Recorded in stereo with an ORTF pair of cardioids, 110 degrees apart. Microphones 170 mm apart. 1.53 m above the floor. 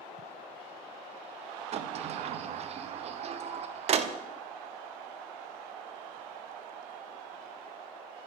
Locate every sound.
1.7 s a sliding door: 40° right, 0.6 m